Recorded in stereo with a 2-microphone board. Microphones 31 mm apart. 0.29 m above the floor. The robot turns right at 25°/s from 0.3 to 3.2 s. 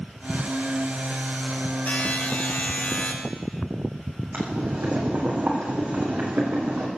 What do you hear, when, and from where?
1.9 s a buzzer: 90° left, 4 m; by 3.1 s 120° left, 4 m
4.3 s boiling: 70° right (ahead or behind), 4 m